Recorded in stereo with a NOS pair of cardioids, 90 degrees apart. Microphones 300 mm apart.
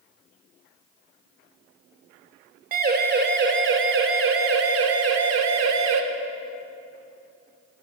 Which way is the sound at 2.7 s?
30° right.